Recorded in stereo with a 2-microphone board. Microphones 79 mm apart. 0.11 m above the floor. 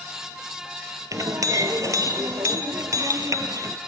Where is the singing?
No singing in this recording.